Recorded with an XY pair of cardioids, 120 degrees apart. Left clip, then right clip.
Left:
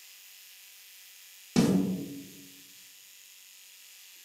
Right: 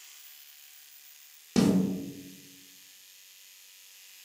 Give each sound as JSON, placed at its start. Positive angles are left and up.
{"t": 1.6, "sound": "a snare drum", "azimuth_deg": -10, "distance_m": 0.9}